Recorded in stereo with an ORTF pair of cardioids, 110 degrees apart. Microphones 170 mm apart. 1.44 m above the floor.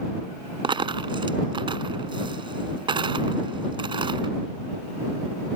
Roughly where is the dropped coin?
Ahead right.